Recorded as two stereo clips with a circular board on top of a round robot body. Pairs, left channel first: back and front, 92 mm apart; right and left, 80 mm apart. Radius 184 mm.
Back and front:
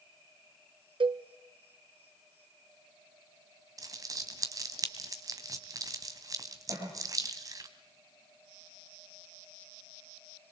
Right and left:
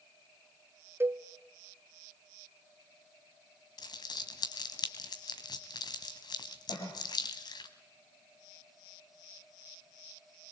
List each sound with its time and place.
1.0 s a cowbell: 30° left, 0.8 m
3.8 s crumpling: 55° right, 1.7 m
6.7 s a cough: 60° right, 6.5 m